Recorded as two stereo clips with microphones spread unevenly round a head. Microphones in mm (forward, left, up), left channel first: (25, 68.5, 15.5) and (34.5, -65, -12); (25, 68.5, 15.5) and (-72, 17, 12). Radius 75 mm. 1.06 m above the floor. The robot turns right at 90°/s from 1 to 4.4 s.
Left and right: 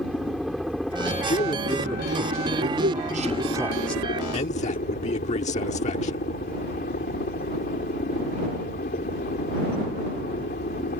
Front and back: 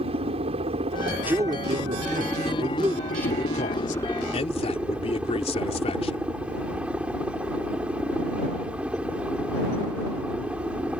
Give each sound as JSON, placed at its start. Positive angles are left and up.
{"t": 0.0, "sound": "a helicopter", "azimuth_deg": -175}
{"t": 1.2, "sound": "a man speaking", "azimuth_deg": 135}